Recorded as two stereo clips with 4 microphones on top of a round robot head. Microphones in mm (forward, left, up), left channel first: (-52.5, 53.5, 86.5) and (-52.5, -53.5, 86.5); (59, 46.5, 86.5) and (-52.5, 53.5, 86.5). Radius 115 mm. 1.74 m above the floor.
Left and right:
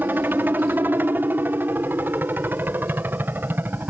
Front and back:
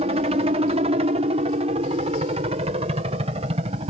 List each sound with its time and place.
0.0 s a helicopter: 160° right